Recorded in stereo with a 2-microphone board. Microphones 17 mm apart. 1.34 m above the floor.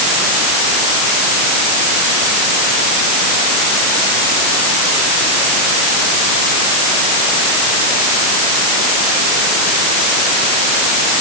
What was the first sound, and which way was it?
Only background noise.